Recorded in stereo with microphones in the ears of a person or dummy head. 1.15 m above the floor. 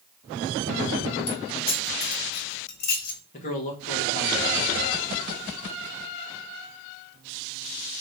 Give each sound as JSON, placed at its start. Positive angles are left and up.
{"t": 1.3, "sound": "keys jangling", "side_deg": 50, "distance_m": 1.8}
{"t": 3.3, "sound": "a man speaking", "side_deg": 40, "distance_m": 1.4}